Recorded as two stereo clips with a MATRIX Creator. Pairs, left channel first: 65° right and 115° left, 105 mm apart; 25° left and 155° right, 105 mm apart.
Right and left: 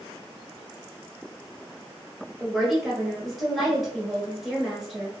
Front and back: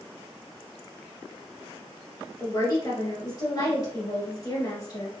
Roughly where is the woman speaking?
Ahead left.